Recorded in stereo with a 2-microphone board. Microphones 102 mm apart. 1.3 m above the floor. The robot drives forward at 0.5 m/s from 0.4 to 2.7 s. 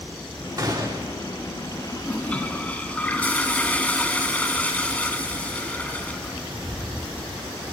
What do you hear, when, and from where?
0.6 s a gunshot: 40° right (ahead or behind), 3.5 m; by 1.2 s 45° right (ahead or behind), 3.5 m
2.0 s a toilet flushing: 10° left (ahead or behind), 2 m; by 6.4 s 15° left (ahead or behind), 1.8 m